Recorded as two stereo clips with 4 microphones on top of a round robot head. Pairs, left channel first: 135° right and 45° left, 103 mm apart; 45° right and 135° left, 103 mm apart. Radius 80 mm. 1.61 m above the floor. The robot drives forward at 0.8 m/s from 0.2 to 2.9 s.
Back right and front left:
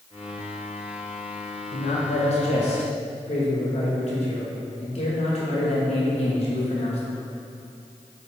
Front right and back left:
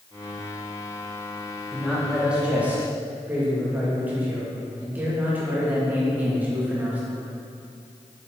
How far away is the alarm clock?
No alarm clock in this recording.